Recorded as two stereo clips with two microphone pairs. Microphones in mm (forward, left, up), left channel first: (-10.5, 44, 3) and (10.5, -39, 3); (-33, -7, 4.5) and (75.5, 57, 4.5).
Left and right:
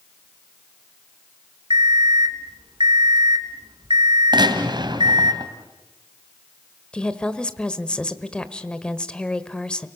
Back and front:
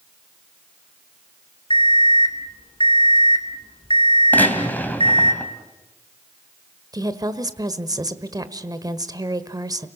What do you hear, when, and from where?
1.7 s an alarm clock: 100° right, 1.7 m
4.3 s a gunshot: 75° right, 2.5 m
6.9 s a woman speaking: 35° left, 1.3 m